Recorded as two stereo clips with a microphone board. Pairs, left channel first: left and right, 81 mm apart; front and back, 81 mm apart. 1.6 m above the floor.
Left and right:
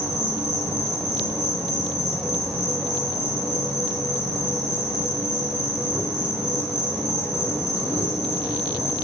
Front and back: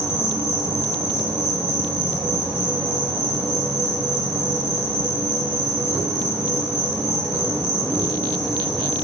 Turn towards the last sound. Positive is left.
turn(degrees=-170)